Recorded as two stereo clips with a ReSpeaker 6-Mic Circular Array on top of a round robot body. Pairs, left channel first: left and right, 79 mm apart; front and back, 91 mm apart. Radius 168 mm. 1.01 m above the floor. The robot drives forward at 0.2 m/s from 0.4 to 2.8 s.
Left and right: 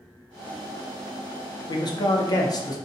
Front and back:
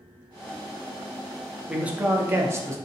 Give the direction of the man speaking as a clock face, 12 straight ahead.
9 o'clock.